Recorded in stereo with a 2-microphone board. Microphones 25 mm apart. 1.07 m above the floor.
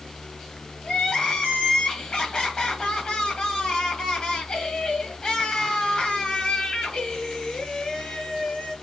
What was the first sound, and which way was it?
Crying, 30° left (ahead or behind).